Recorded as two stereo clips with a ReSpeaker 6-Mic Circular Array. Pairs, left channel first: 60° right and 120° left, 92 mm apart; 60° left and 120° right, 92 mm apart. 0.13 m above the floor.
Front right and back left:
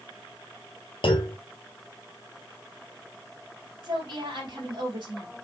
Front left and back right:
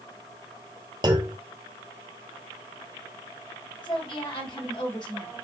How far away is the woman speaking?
About 3.5 m.